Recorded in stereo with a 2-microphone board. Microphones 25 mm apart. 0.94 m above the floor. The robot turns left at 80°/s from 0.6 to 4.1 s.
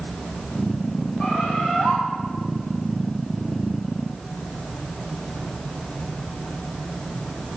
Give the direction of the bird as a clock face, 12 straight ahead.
8 o'clock.